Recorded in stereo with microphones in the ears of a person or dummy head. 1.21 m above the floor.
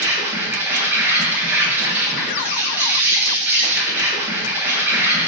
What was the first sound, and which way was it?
An insect, 10° right (ahead or behind).